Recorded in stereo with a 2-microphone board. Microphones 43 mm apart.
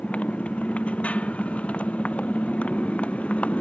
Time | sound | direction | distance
0.0 | a motorcycle | 30° left (ahead or behind) | ?